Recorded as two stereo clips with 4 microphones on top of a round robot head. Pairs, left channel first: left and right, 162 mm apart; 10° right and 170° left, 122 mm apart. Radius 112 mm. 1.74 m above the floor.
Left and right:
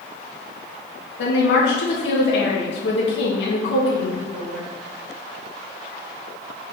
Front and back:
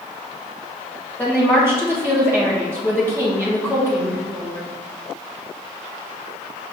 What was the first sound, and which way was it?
A woman speaking, 65° left.